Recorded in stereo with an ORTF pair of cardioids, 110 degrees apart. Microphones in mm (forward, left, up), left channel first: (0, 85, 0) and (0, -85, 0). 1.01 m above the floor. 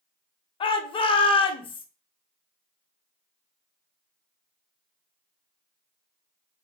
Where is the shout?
30° left, 0.6 m.